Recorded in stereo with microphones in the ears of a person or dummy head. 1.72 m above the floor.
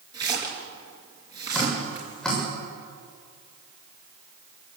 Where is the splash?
20° right (ahead or behind), 5 m.